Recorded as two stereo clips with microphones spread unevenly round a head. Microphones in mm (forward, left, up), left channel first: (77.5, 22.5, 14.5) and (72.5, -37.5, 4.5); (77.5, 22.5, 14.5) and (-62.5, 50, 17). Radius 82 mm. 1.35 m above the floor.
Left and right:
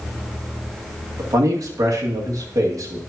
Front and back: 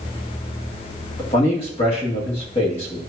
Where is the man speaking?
70° right, 2 m.